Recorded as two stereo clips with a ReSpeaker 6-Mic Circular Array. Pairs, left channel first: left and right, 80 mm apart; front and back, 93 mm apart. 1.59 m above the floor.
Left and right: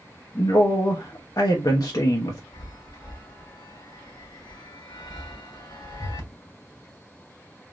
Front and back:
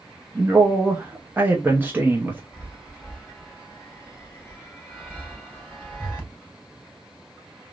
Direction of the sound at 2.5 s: 100° left.